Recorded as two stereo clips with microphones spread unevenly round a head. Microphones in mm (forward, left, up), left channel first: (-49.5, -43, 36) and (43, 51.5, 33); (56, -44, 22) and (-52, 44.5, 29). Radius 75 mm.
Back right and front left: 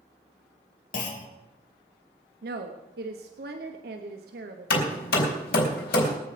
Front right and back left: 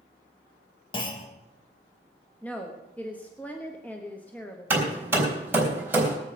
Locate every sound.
0.9 s a clunk: 100° right, 2 m
2.4 s a woman speaking: 40° left, 1.2 m
4.7 s hammering: 145° right, 3.5 m